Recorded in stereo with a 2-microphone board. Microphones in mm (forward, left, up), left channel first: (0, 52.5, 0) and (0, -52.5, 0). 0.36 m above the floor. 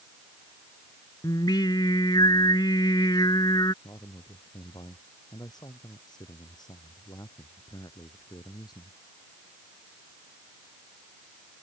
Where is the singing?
45° left (ahead or behind).